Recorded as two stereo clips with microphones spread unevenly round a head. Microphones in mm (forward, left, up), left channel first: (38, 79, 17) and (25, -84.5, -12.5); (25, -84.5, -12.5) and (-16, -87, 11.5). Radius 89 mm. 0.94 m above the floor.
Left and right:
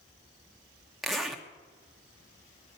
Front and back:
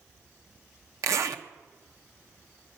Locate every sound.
1.0 s a zipper: 175° left, 1.0 m